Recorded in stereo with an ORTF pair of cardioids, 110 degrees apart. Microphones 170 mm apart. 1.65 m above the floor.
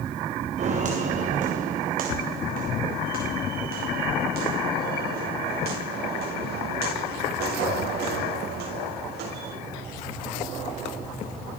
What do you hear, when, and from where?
0.6 s footsteps: 45° right, 7.5 m; by 9.5 s 75° right, 18 m